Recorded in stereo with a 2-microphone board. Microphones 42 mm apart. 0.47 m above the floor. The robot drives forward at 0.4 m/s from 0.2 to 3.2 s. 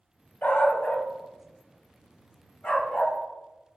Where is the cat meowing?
No cat meowing in this recording.